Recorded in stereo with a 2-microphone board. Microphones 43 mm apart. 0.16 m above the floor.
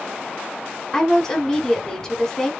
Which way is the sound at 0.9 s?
15° left (ahead or behind).